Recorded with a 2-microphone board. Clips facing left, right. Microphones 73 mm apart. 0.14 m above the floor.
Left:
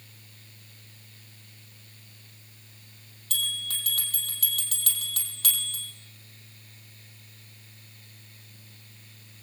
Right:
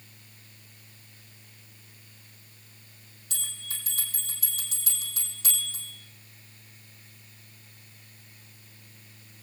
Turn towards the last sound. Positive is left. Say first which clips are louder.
# left 8 dB
turn(degrees=70)  # may be behind; listen again after turning